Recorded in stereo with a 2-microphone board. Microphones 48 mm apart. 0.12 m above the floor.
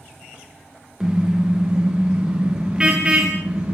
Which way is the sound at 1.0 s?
10° right (ahead or behind).